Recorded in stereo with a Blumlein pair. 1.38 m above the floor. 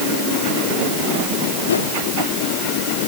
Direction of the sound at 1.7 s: 70° left.